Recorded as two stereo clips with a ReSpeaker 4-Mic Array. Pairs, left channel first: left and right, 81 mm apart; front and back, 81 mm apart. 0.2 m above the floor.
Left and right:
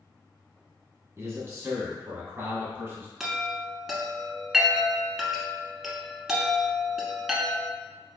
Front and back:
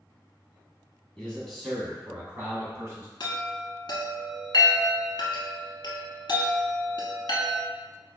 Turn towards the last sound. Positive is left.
turn(degrees=-5)